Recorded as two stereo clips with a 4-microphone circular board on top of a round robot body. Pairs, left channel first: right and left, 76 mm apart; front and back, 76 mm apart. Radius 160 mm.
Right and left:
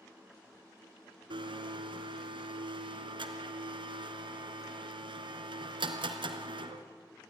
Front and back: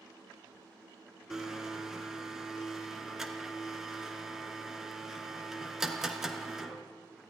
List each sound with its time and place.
1.3 s a blender: 95° left, 1.3 m